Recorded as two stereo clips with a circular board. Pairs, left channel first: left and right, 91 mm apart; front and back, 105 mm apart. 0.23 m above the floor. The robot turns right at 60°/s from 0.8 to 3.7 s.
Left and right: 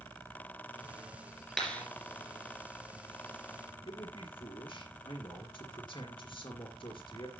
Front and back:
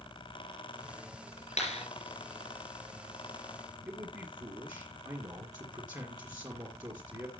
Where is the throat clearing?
No throat clearing in this recording.